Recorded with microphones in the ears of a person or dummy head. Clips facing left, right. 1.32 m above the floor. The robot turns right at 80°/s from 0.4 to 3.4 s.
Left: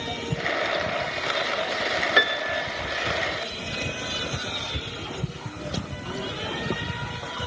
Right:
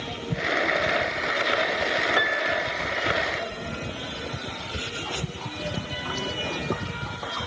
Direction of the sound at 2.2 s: 30° left.